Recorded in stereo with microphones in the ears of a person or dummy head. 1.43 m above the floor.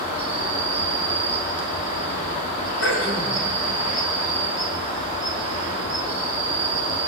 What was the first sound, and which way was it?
An insect, 40° left (ahead or behind).